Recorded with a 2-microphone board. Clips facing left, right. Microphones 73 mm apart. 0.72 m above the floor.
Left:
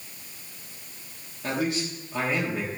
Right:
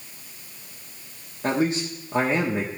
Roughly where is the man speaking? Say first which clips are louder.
Right 4 dB; right.